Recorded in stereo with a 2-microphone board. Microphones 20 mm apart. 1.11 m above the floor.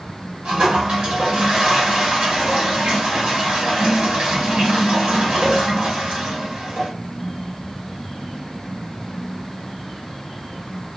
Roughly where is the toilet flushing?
Right.